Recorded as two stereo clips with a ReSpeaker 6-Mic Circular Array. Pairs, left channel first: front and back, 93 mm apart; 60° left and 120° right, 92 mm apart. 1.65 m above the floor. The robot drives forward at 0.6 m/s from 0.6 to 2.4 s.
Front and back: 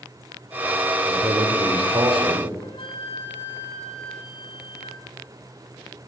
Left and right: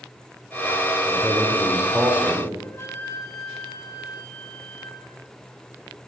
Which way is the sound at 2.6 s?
Straight ahead.